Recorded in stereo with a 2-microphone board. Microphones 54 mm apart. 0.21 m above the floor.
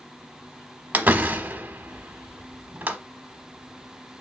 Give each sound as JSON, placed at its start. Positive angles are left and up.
{"t": 0.9, "sound": "a door slam", "side_deg": -35, "distance_m": 0.8}